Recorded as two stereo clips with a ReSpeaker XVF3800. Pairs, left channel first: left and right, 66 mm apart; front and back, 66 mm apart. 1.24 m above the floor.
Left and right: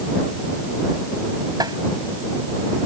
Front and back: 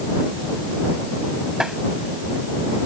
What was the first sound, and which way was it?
Tapping, 100° right.